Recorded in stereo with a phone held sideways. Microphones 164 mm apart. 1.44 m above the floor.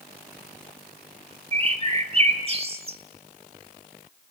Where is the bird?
40° right (ahead or behind), 1.8 m.